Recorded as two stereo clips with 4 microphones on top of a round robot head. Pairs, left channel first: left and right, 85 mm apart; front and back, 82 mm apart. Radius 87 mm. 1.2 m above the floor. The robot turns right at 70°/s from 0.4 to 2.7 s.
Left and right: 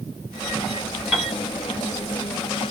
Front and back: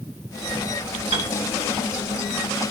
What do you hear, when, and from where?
1.1 s a piano: 170° right, 1.7 m; by 1.3 s 155° right, 1.7 m